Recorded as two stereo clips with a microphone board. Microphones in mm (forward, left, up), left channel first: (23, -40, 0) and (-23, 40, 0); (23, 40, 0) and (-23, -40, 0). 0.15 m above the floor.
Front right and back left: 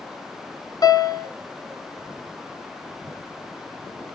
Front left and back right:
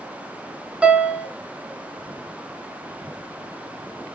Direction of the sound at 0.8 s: 50° right.